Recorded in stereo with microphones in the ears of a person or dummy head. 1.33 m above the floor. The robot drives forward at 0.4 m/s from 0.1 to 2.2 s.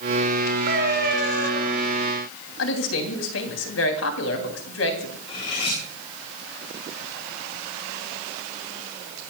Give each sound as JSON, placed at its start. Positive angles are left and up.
{"t": 0.7, "sound": "a cat meowing", "side_deg": -65, "distance_m": 4.5}
{"t": 2.6, "sound": "a woman speaking", "side_deg": 80, "distance_m": 2.5}
{"t": 5.3, "sound": "cutlery clinking", "side_deg": 30, "distance_m": 9.0}